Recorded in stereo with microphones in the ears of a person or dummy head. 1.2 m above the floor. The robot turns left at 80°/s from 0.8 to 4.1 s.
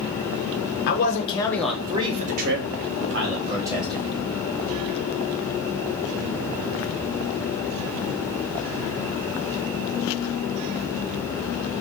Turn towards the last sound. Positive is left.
turn(degrees=170)